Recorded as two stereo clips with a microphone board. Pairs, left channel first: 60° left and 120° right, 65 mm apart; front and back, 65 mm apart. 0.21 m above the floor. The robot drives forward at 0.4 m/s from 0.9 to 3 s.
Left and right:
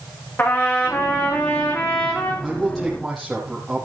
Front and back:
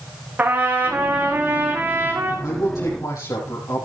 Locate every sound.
0.4 s a trumpet: 115° left, 4.5 m; by 2.3 s 120° left, 4.5 m
2.4 s a man speaking: 30° right, 7 m; by 3.9 s 35° right, 6.5 m